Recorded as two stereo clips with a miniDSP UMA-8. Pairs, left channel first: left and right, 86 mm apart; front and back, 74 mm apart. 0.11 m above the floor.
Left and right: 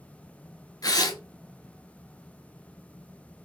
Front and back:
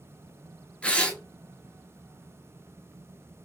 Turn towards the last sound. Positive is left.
turn(degrees=70)